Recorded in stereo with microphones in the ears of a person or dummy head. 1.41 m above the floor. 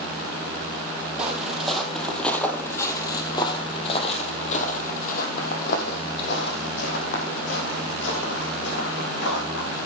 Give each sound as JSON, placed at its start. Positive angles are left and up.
{"t": 1.2, "sound": "footsteps", "side_deg": -5, "distance_m": 3.0}